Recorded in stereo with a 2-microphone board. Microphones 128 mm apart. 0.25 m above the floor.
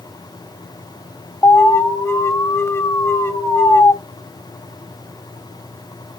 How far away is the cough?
I don't hear a cough.